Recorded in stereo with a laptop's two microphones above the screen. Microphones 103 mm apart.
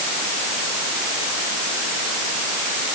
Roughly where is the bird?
I don't hear a bird.